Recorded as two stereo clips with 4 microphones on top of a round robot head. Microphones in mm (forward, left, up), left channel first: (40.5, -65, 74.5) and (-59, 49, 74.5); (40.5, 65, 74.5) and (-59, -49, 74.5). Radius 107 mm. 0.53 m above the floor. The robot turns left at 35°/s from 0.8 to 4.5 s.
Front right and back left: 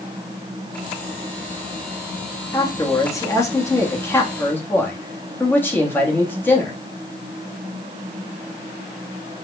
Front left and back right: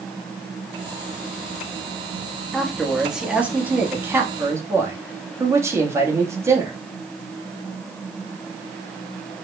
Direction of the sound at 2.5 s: 30° right.